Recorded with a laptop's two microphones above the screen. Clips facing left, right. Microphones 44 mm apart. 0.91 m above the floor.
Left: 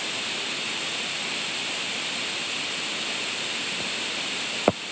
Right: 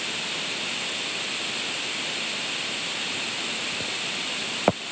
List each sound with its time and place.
Only background noise.